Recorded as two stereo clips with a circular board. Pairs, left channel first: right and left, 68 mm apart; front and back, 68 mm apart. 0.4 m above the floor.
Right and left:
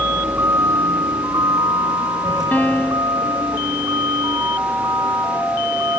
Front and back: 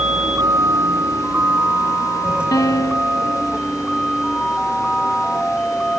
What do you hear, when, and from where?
0.0 s a vehicle: 155° left; by 6.0 s 90° left
2.5 s a piano: 25° right